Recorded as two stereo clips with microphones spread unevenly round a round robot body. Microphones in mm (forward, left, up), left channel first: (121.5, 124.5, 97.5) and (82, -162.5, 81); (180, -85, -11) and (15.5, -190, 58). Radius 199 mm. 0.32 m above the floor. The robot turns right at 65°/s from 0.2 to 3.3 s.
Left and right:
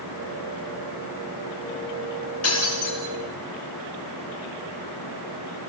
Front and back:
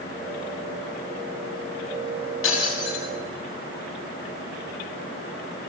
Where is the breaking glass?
45° left, 4 m; by 3.0 s 80° left, 4 m.